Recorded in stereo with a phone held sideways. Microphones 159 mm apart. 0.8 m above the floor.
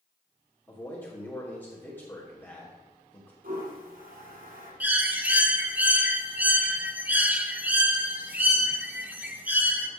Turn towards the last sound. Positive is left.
turn(degrees=-10)  # may be behind; listen again after turning